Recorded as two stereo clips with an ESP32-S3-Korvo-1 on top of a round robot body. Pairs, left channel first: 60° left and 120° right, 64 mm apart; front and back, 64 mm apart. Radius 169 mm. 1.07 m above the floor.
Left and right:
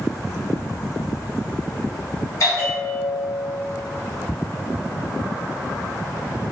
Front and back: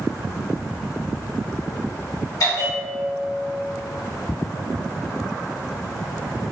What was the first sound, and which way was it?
A bell, 25° left.